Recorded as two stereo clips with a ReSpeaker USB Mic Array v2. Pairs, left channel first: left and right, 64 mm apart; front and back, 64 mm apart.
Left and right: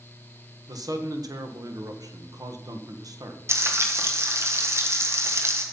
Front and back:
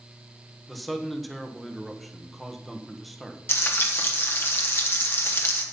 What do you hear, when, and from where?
0.7 s a man speaking: 90° right, 1.3 m
3.5 s frying: 45° right, 1.4 m